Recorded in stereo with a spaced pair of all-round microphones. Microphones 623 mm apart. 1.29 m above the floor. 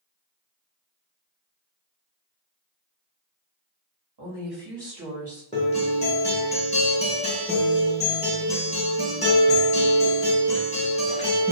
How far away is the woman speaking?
About 1.5 m.